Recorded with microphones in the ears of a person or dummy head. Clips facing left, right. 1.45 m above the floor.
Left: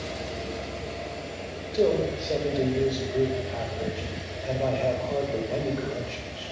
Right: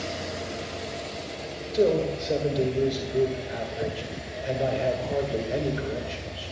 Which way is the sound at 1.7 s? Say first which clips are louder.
Right 1 dB; 10° right (ahead or behind).